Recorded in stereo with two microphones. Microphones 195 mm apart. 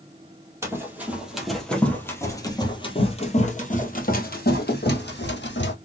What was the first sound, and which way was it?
Running footsteps, 15° right (ahead or behind).